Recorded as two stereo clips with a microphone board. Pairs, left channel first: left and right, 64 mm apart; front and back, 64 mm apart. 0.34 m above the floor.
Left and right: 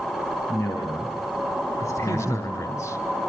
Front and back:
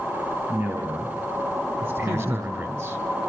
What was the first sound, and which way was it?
A man speaking, 130° left.